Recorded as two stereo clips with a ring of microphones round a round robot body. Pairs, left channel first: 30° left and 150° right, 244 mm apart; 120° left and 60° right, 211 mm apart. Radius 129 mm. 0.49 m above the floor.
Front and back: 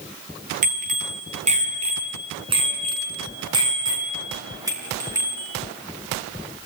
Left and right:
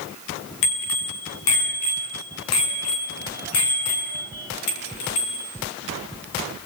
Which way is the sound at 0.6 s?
150° left.